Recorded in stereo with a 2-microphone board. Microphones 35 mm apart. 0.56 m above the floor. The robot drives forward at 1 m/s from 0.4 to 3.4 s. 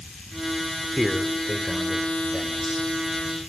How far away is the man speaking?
About 1.5 m.